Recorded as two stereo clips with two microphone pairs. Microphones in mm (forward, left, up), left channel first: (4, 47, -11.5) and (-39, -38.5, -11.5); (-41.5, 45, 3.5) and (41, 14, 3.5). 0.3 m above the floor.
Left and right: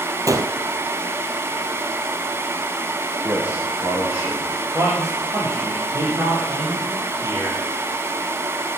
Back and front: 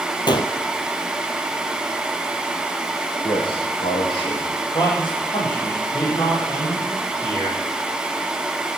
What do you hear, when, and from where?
0.3 s a gunshot: 170° right, 1.2 m
3.2 s a man speaking: 170° left, 8.5 m
4.7 s a man speaking: 175° right, 8.5 m